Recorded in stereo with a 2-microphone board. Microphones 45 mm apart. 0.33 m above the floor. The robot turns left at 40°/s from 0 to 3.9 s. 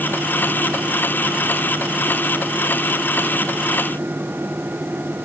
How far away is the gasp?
I don't hear a gasp.